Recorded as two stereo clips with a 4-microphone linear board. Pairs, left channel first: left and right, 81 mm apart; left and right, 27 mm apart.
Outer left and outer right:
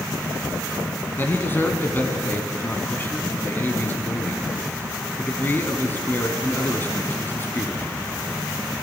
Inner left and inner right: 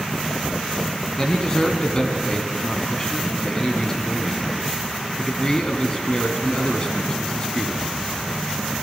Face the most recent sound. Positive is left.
turn(degrees=25)  # may be behind; listen again after turning